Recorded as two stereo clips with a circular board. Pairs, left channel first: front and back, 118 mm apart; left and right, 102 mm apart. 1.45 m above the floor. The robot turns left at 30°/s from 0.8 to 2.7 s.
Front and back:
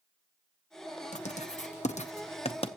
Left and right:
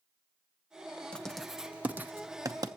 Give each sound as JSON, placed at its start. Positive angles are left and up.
{"t": 1.1, "sound": "writing", "azimuth_deg": 10, "distance_m": 1.0}